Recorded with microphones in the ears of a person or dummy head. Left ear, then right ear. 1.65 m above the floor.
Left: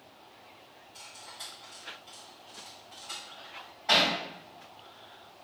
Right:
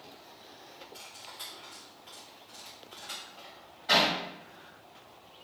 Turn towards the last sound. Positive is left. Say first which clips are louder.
# left 1 dB
turn(degrees=20)  # may be behind; listen again after turning